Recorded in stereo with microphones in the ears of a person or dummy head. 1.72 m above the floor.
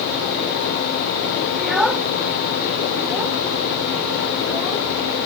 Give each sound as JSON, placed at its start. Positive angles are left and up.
{"t": 1.6, "sound": "a child speaking", "side_deg": -5}